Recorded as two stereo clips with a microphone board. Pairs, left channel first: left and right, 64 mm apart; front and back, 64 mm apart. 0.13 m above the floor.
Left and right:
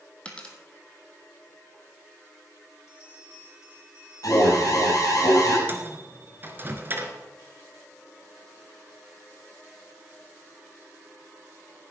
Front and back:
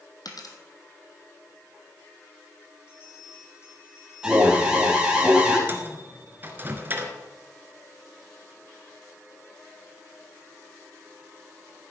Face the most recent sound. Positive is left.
turn(degrees=-135)